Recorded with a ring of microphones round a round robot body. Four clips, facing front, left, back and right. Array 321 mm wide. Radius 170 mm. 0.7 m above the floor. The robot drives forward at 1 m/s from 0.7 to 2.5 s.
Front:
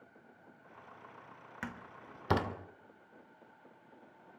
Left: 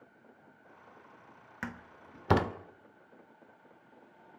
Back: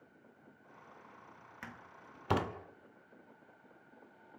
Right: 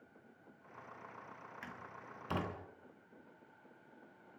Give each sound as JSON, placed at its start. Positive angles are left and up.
{"t": 1.6, "sound": "a door slam", "azimuth_deg": 65, "distance_m": 2.0}